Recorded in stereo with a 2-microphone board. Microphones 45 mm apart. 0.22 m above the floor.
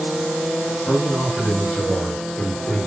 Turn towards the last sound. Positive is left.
turn(degrees=35)  # may be behind; listen again after turning